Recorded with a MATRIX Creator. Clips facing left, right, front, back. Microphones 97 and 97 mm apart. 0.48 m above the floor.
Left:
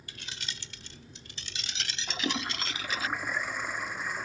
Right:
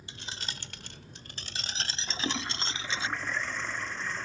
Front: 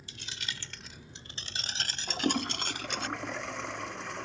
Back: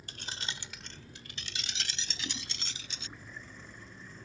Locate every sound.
0.1 s keys jangling: 150° right; by 3.1 s 25° right
2.1 s a toilet flushing: 10° left